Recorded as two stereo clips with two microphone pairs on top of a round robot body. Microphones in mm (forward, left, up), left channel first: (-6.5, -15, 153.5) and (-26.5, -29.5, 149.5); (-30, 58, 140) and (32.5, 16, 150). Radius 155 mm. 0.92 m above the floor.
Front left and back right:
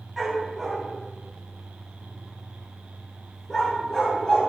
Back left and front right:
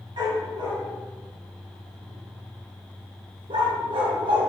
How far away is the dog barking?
About 3 m.